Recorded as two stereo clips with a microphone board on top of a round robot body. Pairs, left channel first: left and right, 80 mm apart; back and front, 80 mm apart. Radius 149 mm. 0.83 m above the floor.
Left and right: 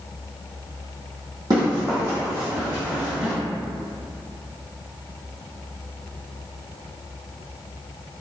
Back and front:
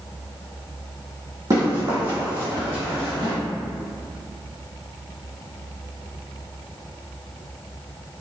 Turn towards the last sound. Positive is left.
turn(degrees=-5)